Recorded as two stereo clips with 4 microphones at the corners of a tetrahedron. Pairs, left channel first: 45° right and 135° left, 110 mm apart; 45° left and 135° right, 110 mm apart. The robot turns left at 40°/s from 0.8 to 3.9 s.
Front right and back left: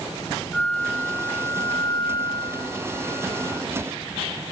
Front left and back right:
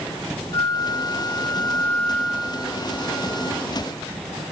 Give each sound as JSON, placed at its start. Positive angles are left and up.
{"t": 0.5, "sound": "a flute", "azimuth_deg": 20, "distance_m": 0.6}